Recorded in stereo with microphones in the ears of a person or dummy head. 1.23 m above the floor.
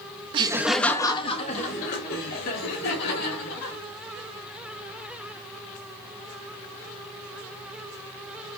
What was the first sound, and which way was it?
Laughter, 30° right (ahead or behind).